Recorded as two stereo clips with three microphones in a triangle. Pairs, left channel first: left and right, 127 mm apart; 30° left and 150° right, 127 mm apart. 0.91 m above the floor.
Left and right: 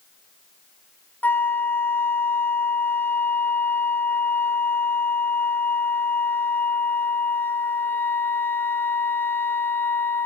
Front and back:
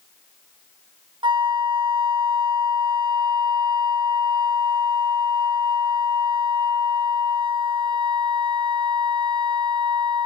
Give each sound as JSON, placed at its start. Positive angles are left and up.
{"t": 1.2, "sound": "a flute", "azimuth_deg": 165, "distance_m": 1.6}